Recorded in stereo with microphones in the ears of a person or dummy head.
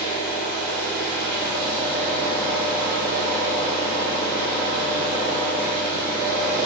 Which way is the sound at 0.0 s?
40° right (ahead or behind).